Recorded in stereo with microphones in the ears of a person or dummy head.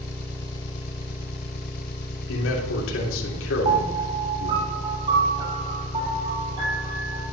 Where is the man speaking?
85° left, 3 m.